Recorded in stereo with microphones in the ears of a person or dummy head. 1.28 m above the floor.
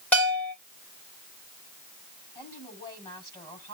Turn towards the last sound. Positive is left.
turn(degrees=20)  # may be behind; listen again after turning